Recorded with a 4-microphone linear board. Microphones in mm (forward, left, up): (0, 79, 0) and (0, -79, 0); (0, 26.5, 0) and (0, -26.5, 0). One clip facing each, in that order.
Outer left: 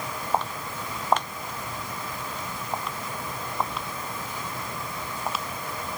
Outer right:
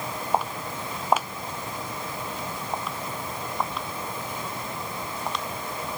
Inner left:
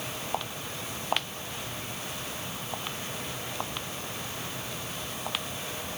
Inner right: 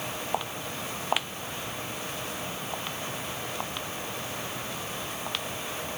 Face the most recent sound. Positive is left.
turn(degrees=5)  # may be behind; listen again after turning